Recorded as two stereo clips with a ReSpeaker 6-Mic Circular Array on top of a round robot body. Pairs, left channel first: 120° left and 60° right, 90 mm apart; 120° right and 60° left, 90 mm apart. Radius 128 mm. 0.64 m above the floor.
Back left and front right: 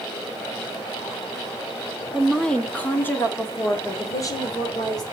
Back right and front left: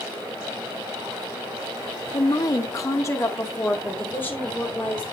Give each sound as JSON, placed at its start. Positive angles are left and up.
{"t": 2.1, "sound": "a woman speaking", "azimuth_deg": -150, "distance_m": 1.4}